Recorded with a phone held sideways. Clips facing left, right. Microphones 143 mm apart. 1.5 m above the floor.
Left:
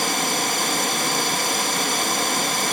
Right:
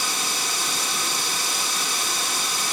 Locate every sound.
0.0 s running water: 55° left (ahead or behind), 1.3 m